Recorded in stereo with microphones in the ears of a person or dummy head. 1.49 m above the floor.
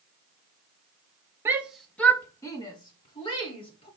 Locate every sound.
1.4 s a shout: 15° right (ahead or behind), 1.2 m; by 3.9 s 30° left (ahead or behind), 3.5 m